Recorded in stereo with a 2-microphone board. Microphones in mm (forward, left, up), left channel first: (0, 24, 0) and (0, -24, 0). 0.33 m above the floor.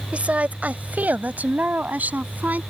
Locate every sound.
0.1 s a woman speaking: 30° right (ahead or behind); by 2.6 s 35° right (ahead or behind)